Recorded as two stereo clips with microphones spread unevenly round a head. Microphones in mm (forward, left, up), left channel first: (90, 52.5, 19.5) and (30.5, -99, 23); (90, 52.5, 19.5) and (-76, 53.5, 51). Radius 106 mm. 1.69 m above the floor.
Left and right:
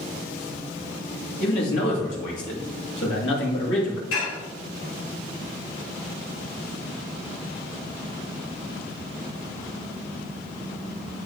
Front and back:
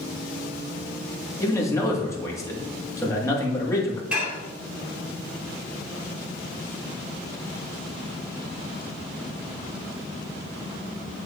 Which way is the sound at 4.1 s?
100° left.